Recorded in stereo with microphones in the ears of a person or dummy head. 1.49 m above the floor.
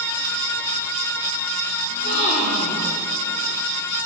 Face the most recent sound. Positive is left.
turn(degrees=45)  # may be behind; listen again after turning